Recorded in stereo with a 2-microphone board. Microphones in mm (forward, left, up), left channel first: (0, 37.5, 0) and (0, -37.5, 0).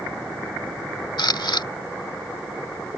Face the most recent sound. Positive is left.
turn(degrees=85)